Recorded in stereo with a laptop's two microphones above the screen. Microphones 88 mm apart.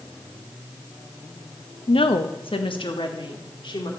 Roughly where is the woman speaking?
Left.